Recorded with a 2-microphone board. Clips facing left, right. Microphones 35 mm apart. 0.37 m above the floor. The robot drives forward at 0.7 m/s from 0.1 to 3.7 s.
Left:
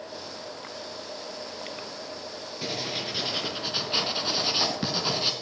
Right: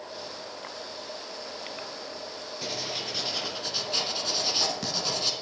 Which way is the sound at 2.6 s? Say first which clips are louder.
Left 2 dB; 15° left (ahead or behind).